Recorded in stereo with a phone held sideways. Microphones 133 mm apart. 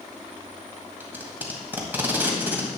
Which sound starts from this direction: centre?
Tape being pulled, at 1.0 s.